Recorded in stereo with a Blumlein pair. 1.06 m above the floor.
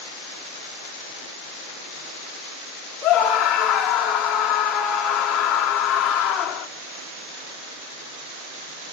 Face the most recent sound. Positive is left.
turn(degrees=25)